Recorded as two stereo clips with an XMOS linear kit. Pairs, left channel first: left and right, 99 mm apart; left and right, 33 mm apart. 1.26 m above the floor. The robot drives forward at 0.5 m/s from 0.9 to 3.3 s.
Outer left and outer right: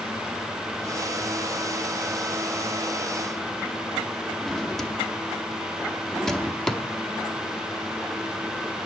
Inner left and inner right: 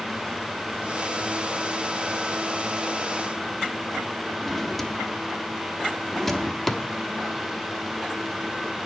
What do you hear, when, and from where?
4.4 s a drawer: 5° left (ahead or behind), 0.8 m